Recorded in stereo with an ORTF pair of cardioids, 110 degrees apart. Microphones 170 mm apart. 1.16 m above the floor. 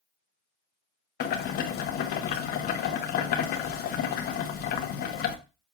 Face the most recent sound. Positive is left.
turn(degrees=65)